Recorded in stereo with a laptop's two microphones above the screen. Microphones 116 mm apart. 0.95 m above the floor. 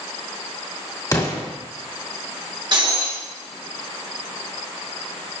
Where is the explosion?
30° left (ahead or behind), 2 m.